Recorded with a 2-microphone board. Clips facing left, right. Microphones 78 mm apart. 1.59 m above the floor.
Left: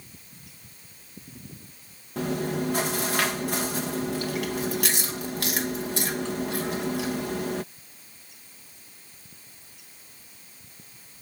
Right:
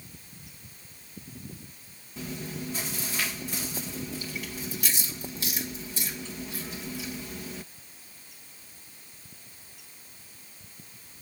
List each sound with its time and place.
2.2 s chewing: 80° left